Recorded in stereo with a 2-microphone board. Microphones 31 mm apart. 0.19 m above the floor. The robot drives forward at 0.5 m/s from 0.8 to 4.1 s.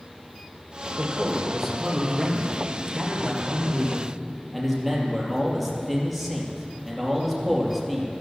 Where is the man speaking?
5° right (ahead or behind), 3.5 m; by 8.1 s centre (ahead or behind), 5 m.